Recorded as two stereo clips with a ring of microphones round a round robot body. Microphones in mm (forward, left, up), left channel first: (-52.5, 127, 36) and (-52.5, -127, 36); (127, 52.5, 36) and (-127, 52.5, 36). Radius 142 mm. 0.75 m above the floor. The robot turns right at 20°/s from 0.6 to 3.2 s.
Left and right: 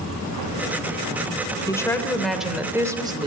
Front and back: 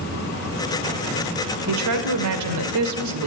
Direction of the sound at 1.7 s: 170° left.